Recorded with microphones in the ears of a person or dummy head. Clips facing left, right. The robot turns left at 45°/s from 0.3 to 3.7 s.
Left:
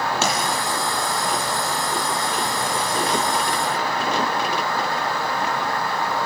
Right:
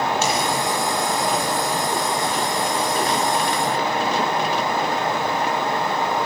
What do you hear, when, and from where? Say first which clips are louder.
0.2 s a pop: right 1 dB; 65° left (ahead or behind), 8 m